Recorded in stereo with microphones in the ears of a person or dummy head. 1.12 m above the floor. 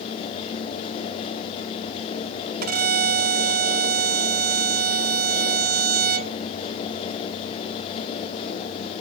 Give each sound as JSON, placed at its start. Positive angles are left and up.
{"t": 2.6, "sound": "a violin", "side_deg": -50}